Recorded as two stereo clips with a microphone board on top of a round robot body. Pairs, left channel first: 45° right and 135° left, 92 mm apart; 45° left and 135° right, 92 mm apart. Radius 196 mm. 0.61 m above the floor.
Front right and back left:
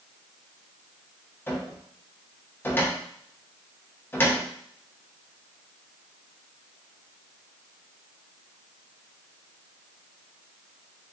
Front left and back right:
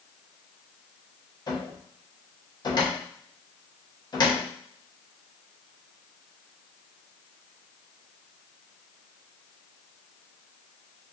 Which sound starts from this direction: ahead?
A cupboard door, at 1.5 s.